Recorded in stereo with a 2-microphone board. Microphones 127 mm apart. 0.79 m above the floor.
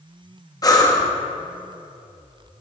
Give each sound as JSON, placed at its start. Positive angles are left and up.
{"t": 0.6, "sound": "breathing", "side_deg": 30, "distance_m": 1.0}